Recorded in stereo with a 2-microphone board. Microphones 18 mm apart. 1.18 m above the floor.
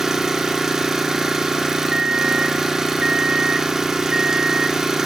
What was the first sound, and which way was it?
An engine running, 25° right (ahead or behind).